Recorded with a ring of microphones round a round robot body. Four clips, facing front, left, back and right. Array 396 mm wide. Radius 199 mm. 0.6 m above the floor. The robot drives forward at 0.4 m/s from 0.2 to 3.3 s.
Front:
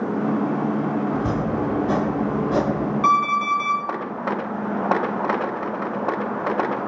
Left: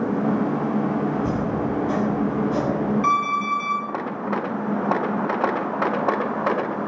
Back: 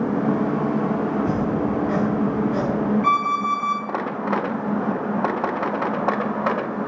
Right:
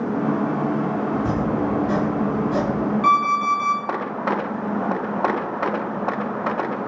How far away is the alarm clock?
About 5 m.